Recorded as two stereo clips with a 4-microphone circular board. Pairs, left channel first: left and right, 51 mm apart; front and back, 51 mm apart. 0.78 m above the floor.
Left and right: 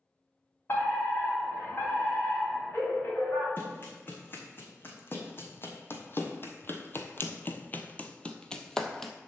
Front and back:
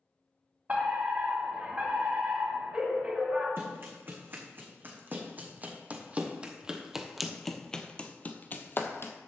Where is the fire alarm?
125° left, 3.5 m.